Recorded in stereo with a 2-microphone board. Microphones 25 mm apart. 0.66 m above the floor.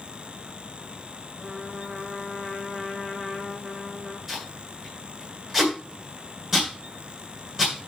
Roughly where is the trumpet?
Centre.